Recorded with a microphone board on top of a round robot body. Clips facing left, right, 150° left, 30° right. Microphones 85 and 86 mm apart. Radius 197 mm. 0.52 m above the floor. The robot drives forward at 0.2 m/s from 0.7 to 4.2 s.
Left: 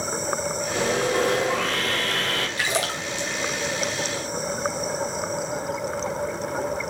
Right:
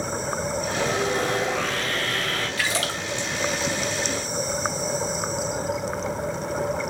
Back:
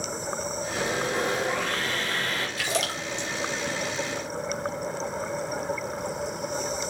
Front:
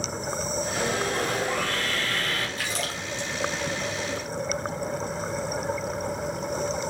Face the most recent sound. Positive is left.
turn(degrees=170)